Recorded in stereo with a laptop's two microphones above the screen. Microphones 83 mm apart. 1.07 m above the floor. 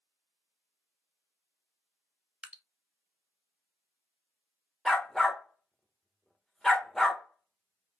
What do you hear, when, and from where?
2.4 s dripping: 10° right (ahead or behind), 0.5 m
4.8 s a dog barking: 5° left (ahead or behind), 1.0 m